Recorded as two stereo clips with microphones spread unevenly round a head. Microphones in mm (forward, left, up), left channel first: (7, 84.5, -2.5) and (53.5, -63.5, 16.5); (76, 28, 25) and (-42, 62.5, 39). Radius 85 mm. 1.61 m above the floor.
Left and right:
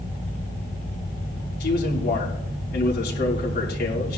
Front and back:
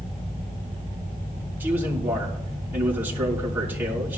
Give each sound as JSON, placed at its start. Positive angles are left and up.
{"t": 1.6, "sound": "a man speaking", "azimuth_deg": 90, "distance_m": 5.0}